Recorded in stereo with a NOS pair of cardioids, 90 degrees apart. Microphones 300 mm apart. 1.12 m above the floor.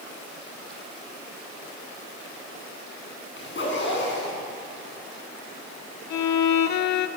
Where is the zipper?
40° left, 9.5 m.